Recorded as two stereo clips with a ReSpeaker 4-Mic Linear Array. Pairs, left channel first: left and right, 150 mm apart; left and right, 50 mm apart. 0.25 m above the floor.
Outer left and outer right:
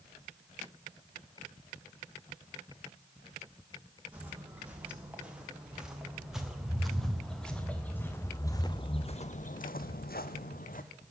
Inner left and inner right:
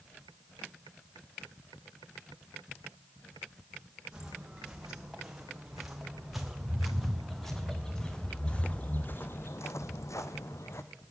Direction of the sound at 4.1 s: 10° right (ahead or behind).